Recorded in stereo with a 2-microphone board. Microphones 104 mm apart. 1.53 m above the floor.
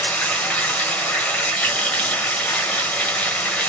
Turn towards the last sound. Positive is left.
turn(degrees=10)  # may be behind; listen again after turning